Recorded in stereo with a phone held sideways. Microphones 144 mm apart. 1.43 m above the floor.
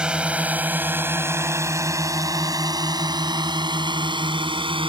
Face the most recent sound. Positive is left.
turn(degrees=-35)  # may be behind; listen again after turning